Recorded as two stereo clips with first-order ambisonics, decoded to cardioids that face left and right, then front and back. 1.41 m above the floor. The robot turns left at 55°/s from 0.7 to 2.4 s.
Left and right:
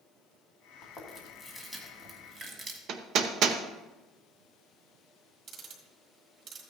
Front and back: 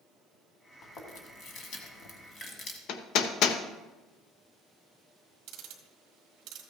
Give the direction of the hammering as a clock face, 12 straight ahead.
1 o'clock.